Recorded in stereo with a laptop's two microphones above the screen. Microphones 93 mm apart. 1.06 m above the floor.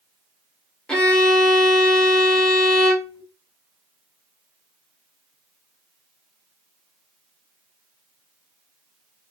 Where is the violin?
10° left (ahead or behind), 1.1 m.